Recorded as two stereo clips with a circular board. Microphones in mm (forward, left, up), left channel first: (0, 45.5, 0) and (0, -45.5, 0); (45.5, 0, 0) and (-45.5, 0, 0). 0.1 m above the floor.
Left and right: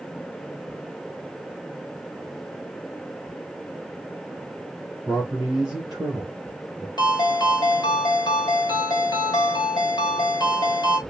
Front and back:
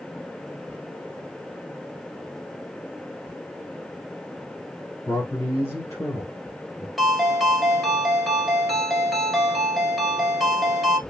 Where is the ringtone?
90° left, 1.5 m.